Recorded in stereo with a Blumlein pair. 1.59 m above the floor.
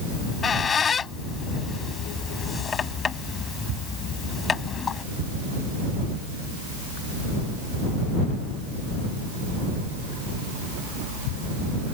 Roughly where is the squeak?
Ahead.